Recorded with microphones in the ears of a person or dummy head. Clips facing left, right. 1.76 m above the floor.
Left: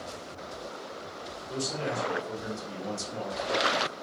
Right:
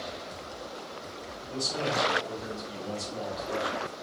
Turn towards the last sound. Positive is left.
turn(degrees=70)  # may be behind; listen again after turning